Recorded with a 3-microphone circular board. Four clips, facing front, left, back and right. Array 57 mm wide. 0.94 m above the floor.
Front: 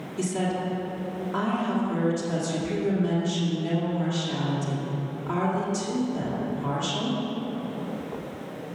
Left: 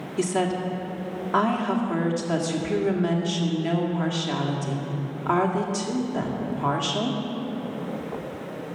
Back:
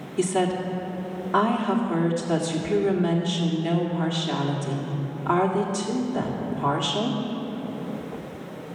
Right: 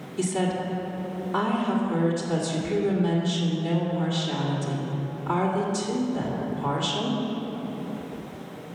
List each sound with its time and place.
0.2 s a woman speaking: 130° left, 1.9 m